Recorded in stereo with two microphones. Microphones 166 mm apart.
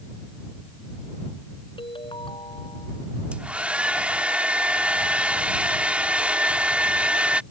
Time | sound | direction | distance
1.8 | a ringtone | 35° left (ahead or behind) | ?
3.3 | a hair dryer | 10° right (ahead or behind) | ?